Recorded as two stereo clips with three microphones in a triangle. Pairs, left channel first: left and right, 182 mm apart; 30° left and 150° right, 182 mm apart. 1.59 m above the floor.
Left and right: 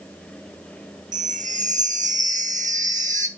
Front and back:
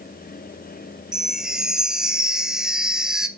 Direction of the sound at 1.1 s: 65° right.